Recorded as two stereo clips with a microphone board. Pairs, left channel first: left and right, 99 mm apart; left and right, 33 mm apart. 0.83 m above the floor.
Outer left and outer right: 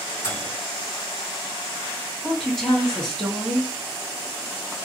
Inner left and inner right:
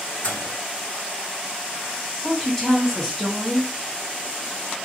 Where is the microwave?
55° left (ahead or behind), 1.4 m.